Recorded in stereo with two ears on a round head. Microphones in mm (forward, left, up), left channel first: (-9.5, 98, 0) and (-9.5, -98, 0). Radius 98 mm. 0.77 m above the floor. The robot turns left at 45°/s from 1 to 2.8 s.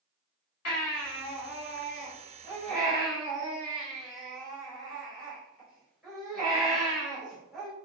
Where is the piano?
I don't hear a piano.